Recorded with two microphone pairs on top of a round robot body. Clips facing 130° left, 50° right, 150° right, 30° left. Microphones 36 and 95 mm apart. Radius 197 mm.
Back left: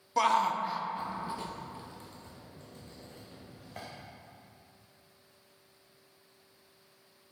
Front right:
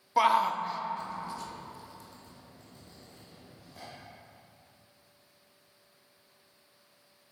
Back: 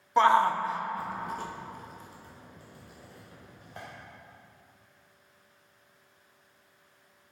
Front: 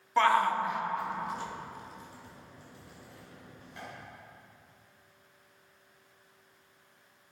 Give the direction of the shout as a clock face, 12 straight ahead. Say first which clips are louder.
Front right 2 dB, back 3 dB; 3 o'clock.